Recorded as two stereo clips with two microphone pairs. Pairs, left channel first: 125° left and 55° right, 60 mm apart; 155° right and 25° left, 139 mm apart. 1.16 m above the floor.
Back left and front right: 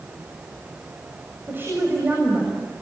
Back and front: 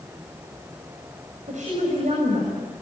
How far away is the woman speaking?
About 7 m.